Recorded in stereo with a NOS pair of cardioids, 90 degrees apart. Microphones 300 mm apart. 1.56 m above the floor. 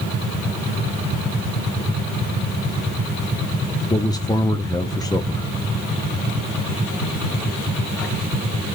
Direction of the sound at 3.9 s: 15° left.